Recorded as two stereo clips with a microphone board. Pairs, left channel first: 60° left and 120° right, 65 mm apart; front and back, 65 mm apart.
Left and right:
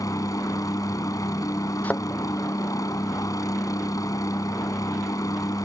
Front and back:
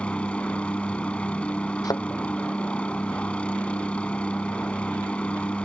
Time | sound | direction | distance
0.0 | a helicopter | 70° left | ?
1.8 | a thud | 5° right | ?